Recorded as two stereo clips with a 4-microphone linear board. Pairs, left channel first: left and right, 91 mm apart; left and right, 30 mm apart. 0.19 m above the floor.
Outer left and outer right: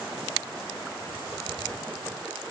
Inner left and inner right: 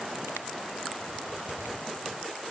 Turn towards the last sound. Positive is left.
No sound to turn to.